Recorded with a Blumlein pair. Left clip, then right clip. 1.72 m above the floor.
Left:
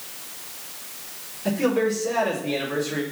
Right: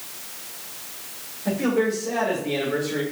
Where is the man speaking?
70° left, 5 m.